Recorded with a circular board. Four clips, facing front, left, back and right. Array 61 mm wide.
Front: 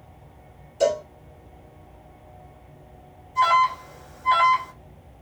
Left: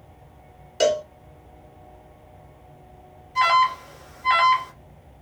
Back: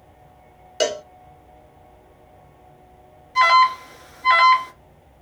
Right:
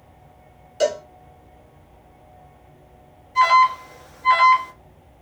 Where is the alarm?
175° right, 2.0 m.